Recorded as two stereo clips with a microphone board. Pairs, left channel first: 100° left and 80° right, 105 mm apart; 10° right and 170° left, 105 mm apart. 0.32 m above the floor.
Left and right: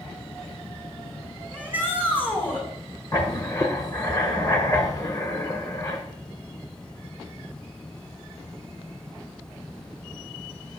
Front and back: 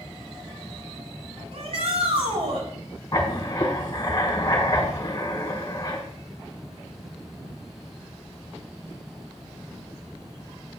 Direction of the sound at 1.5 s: 170° left.